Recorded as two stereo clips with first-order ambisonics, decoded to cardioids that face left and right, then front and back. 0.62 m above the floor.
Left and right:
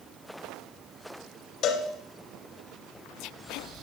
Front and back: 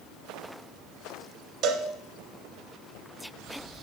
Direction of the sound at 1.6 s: 130° left.